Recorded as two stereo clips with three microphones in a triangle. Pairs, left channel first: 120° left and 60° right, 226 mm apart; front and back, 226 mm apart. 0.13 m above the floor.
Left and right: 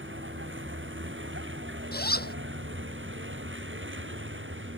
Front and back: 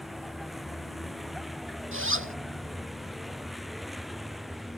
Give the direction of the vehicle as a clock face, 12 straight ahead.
3 o'clock.